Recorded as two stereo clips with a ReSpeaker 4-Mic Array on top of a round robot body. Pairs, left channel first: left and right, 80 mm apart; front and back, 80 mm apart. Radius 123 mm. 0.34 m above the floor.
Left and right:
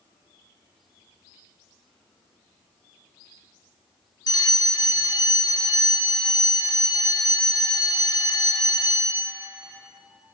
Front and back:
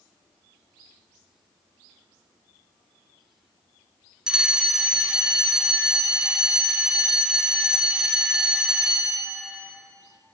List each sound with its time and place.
4.3 s a fire alarm: 100° left, 3.5 m